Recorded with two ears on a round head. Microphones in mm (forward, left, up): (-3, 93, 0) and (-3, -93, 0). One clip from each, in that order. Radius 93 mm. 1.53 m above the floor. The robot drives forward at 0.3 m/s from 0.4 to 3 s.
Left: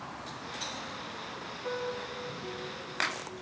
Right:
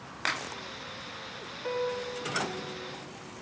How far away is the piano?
About 0.6 m.